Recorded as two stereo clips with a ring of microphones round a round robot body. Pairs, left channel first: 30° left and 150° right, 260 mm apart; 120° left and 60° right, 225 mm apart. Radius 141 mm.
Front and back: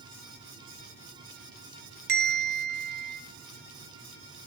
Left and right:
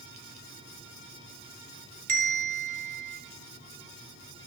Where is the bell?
105° right, 1.4 m.